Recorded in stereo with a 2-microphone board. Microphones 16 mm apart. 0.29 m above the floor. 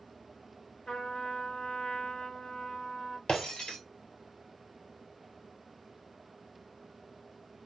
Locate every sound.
0.9 s a trumpet: 80° left, 1.0 m
3.3 s breaking glass: 75° left (ahead or behind), 1.3 m